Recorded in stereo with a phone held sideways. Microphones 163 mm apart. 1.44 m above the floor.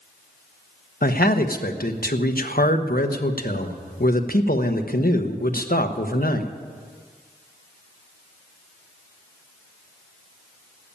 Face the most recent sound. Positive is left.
turn(degrees=60)  # may be behind; listen again after turning